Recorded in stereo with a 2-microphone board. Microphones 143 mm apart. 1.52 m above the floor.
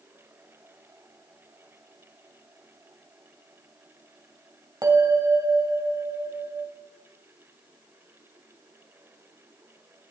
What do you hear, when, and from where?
4.8 s a bell: 25° right (ahead or behind), 2 m